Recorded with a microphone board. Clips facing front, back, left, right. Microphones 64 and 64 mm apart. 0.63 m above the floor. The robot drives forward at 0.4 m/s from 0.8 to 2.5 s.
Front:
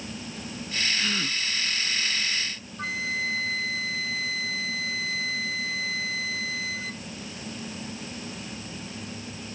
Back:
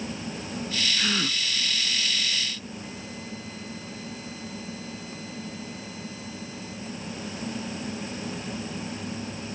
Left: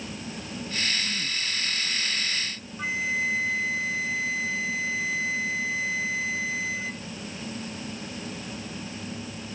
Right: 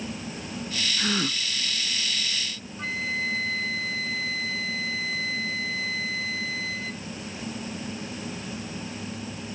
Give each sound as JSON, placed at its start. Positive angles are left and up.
{"t": 1.0, "sound": "a gasp", "azimuth_deg": -105}
{"t": 2.8, "sound": "a flute", "azimuth_deg": 15}